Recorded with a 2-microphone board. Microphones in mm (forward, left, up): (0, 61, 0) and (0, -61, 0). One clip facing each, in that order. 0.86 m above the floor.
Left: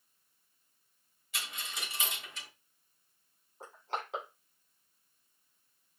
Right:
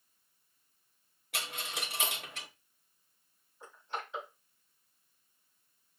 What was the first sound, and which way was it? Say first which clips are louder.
A dropped coin: right 4 dB; 65° right (ahead or behind).